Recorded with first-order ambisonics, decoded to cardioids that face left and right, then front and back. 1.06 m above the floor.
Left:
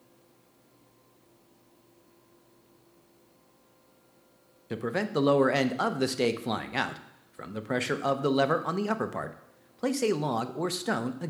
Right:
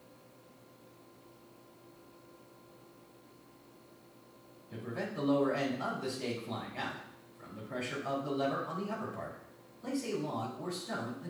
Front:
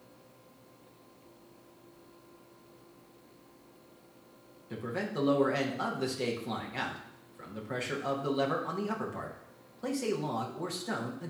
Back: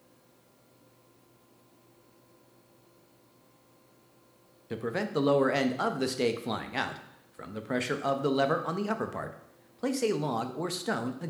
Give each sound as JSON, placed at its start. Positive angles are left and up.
{"t": 4.7, "sound": "a man speaking", "azimuth_deg": 115, "distance_m": 0.7}